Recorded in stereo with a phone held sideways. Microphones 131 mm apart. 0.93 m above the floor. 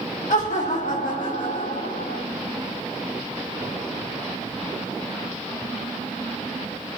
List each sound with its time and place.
0.3 s laughter: 70° left (ahead or behind), 1.4 m; by 2.2 s 75° left (ahead or behind), 3 m